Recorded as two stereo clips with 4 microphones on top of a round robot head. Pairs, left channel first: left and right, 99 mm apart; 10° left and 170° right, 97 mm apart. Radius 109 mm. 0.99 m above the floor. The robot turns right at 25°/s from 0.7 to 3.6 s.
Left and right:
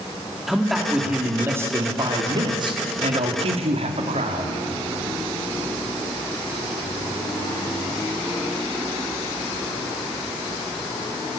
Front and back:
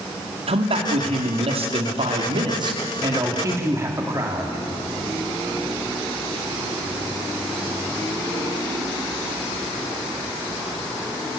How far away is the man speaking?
About 3 m.